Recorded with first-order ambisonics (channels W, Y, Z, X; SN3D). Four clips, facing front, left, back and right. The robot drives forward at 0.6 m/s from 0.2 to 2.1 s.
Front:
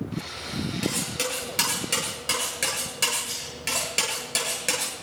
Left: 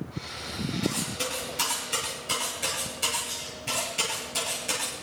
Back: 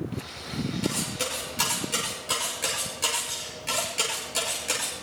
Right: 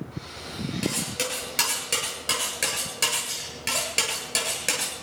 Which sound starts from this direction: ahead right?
Cutlery clinking, at 0.8 s.